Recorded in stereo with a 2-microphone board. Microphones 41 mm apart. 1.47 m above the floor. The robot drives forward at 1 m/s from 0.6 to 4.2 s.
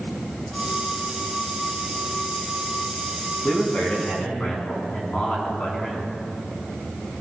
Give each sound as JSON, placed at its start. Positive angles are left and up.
{"t": 3.4, "sound": "a man speaking", "side_deg": 35, "distance_m": 2.5}